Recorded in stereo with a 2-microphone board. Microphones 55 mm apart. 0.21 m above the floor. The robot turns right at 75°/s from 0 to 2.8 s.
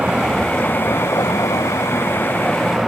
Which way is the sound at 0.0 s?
25° right.